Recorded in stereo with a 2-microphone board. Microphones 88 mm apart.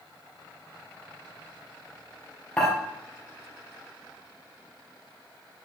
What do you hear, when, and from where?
2.6 s dishes clattering: 10° left (ahead or behind), 2 m